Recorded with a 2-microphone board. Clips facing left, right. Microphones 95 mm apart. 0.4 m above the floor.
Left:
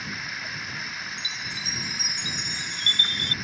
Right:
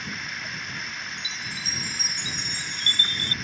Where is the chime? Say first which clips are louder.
Even; 35° right (ahead or behind).